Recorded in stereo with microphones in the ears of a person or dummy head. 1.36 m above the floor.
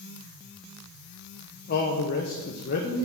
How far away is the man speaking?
About 0.9 m.